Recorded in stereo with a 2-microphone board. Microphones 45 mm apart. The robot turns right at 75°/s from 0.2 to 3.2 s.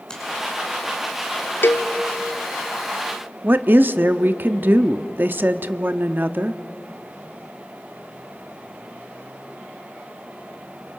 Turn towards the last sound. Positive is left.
turn(degrees=-50)  # may be behind; listen again after turning